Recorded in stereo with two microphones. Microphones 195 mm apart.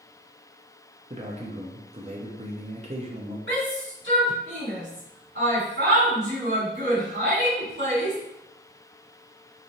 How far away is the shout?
About 1.8 m.